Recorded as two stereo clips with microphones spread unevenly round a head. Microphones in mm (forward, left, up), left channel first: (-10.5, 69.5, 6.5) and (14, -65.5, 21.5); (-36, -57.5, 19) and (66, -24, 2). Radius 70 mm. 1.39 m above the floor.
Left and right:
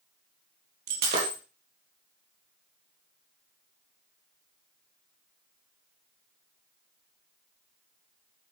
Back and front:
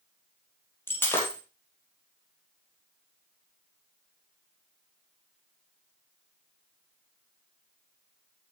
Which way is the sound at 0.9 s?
95° right.